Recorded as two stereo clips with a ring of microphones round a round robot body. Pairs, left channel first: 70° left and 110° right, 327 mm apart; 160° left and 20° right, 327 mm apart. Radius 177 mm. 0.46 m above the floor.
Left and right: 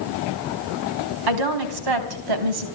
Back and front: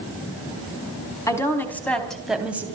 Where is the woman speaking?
120° right, 4 m; by 2.7 s 105° right, 3 m.